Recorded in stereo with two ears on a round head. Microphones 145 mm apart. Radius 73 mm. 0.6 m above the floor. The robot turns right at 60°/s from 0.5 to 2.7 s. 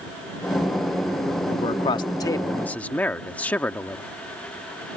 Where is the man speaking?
90° left; by 4.0 s 160° left.